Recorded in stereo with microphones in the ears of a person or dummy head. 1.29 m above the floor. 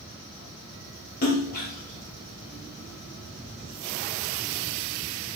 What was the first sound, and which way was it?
A splash, 45° left (ahead or behind).